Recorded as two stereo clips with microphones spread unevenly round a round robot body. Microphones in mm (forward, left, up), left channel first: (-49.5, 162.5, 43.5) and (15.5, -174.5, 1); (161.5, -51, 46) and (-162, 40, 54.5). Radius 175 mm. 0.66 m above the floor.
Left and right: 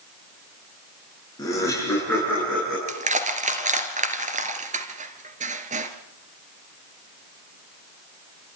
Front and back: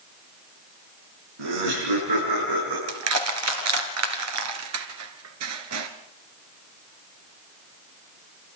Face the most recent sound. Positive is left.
turn(degrees=-150)